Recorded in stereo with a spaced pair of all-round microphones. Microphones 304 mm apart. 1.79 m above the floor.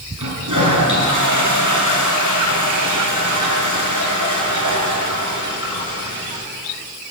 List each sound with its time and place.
0.2 s a toilet flushing: 75° right (ahead or behind), 7.5 m